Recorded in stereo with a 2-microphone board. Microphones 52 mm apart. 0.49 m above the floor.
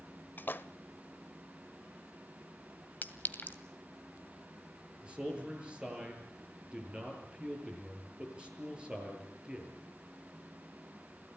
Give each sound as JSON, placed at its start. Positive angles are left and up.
{"t": 0.4, "sound": "a splash", "side_deg": 45, "distance_m": 0.7}
{"t": 3.0, "sound": "a clink", "side_deg": 40, "distance_m": 1.8}
{"t": 5.0, "sound": "a man speaking", "side_deg": -20, "distance_m": 8.0}